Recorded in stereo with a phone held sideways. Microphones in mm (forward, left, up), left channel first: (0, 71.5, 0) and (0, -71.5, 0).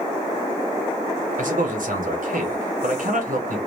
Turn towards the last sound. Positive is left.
turn(degrees=-65)  # may be behind; listen again after turning